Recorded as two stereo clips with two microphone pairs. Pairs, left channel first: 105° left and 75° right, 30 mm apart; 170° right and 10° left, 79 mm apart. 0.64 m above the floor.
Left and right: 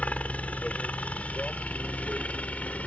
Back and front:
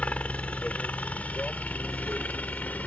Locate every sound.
0.0 s a helicopter: 120° left; by 2.9 s 125° left